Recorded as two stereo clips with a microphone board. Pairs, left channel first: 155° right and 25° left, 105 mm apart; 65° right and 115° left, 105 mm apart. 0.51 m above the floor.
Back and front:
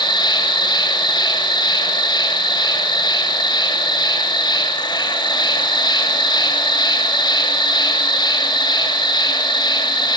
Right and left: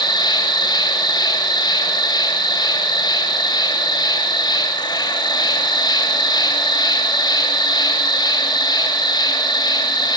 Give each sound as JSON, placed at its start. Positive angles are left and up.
{"t": 0.0, "sound": "an insect", "azimuth_deg": -115, "distance_m": 1.7}